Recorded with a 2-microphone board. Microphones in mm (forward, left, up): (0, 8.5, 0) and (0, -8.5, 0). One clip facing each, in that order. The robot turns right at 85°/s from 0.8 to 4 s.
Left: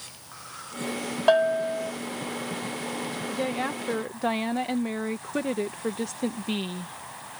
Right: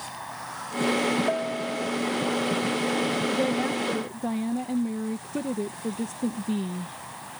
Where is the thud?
I don't hear a thud.